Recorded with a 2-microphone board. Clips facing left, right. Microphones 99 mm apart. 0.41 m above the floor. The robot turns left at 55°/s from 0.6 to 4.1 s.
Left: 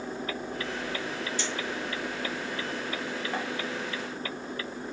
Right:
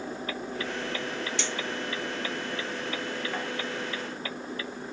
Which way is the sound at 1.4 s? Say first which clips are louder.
Even; 75° right (ahead or behind).